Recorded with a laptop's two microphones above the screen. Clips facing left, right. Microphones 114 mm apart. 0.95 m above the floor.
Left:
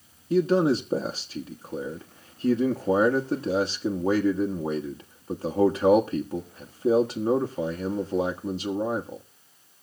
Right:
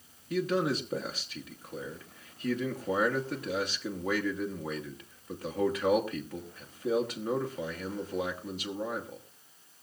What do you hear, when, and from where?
0.3 s a man speaking: 30° left (ahead or behind), 1.2 m